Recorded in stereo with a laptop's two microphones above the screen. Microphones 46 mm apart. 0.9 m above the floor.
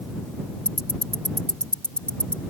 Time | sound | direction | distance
0.7 | ticking | 25° left (ahead or behind) | ?